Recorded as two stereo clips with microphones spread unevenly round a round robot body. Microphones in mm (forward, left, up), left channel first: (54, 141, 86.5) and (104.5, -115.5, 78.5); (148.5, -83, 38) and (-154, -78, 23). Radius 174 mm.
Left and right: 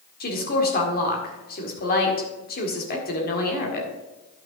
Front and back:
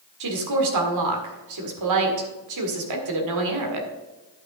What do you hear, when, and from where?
0.2 s a woman speaking: 155° left, 1.8 m